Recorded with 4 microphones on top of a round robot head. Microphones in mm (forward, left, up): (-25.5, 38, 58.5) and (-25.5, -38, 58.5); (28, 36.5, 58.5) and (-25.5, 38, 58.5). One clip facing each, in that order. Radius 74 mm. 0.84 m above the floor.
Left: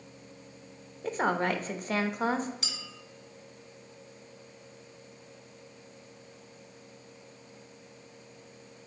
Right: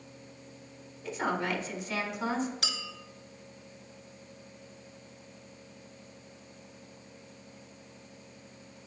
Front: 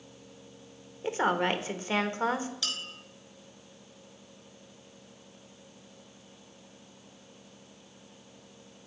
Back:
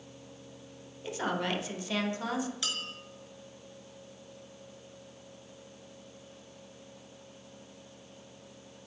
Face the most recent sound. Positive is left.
turn(degrees=-110)